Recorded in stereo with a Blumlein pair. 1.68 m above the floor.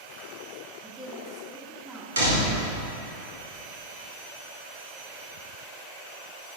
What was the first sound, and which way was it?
A woman speaking, 20° right.